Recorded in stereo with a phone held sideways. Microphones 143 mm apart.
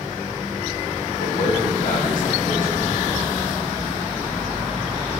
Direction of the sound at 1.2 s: 80° left.